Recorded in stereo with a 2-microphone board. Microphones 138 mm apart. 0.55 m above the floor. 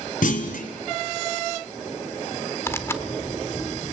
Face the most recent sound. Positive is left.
turn(degrees=20)  # may be behind; listen again after turning